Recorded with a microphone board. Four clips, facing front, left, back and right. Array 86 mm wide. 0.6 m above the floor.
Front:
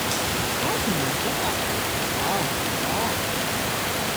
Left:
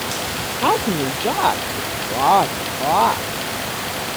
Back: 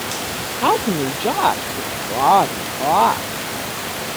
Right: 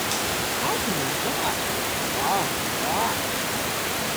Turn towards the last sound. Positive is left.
turn(degrees=150)